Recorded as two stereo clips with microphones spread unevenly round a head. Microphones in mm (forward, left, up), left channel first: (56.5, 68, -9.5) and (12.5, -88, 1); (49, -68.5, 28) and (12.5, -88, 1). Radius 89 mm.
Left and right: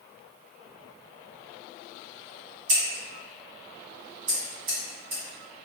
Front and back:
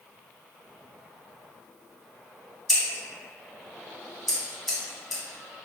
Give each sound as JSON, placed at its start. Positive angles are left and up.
{"t": 2.7, "sound": "scissors", "azimuth_deg": -70, "distance_m": 1.3}